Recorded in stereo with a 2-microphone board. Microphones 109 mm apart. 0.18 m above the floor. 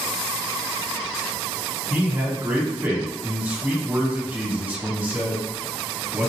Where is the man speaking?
15° right (ahead or behind), 1.4 m.